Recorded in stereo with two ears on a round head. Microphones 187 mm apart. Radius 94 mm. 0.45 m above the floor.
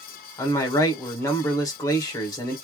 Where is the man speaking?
15° left (ahead or behind), 1.4 m.